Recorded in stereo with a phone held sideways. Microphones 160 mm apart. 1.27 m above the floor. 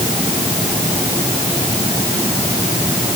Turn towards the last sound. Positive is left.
No sound to turn to.